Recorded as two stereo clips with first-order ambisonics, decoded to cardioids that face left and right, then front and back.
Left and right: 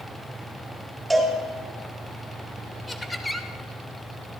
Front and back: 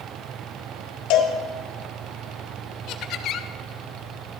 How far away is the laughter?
About 0.8 m.